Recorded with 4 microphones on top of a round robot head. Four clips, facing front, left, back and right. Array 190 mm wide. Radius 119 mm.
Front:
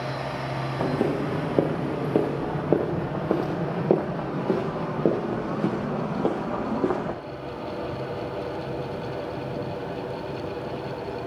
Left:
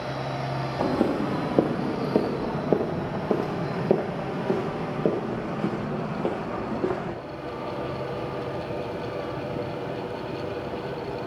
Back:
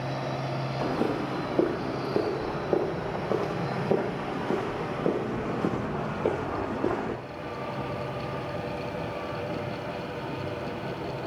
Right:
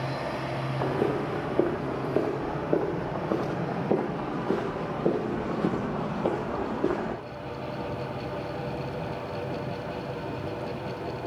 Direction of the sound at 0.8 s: 60° left.